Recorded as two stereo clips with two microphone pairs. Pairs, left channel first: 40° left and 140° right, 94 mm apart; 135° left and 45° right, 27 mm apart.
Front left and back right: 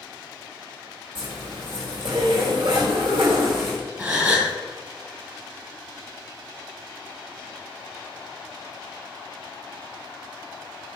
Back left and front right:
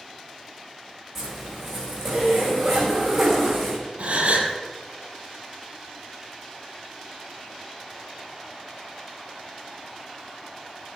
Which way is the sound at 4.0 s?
70° right.